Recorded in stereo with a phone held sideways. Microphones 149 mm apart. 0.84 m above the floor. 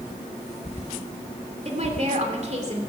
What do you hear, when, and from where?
1.6 s a woman speaking: 50° right (ahead or behind), 3 m